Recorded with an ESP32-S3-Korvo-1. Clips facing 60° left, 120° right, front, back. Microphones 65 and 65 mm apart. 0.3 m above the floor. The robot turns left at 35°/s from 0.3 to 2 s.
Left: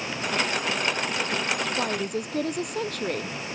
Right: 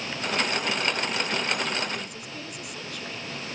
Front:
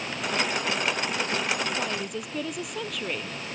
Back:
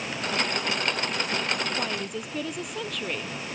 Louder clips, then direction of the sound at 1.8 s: Left 5 dB, even; 95° left.